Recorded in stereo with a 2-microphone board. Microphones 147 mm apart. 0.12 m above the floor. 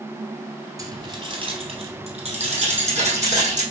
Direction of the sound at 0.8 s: 25° right (ahead or behind).